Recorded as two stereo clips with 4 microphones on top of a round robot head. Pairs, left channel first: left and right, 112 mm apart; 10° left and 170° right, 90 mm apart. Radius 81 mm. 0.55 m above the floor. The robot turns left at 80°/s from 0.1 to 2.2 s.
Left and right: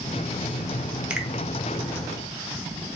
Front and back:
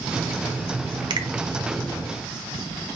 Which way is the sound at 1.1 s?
165° right.